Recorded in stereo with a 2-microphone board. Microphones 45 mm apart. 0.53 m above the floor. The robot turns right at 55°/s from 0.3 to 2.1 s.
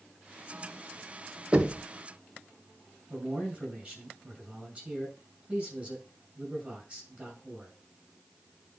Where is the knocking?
20° right (ahead or behind), 1.2 m; by 1.8 s 5° right (ahead or behind), 1.2 m.